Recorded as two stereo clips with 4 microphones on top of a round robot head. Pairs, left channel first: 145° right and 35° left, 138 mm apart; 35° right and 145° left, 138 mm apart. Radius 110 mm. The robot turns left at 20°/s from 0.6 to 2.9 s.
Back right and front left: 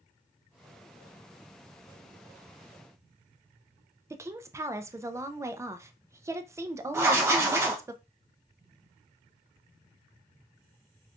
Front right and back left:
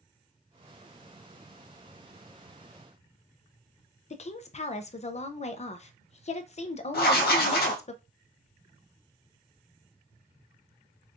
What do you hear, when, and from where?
4.1 s a woman speaking: 25° right, 0.6 m
6.9 s writing: 35° right, 0.7 m